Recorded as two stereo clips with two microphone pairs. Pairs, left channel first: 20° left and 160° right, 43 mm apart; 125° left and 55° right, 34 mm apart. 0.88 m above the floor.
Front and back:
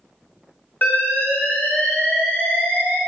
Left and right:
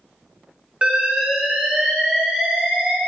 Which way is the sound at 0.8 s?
5° right.